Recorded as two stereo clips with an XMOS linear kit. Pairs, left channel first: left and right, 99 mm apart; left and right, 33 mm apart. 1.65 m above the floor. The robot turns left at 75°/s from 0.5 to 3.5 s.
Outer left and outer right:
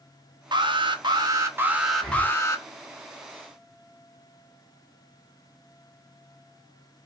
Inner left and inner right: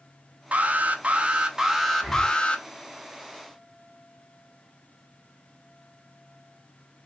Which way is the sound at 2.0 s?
Centre (ahead or behind).